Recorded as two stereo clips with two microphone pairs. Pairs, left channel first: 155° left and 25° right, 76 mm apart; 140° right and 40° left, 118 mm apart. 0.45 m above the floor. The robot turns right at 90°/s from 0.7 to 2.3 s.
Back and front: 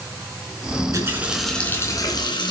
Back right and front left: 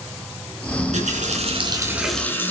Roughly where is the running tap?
Ahead.